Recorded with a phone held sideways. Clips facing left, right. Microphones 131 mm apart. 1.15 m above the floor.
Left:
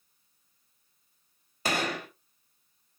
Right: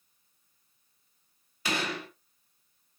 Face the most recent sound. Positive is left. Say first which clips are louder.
# left 2 dB
turn(degrees=45)  # may be behind; listen again after turning